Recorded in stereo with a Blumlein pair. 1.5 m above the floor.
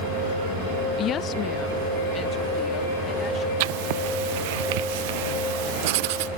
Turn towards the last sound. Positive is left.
turn(degrees=-50)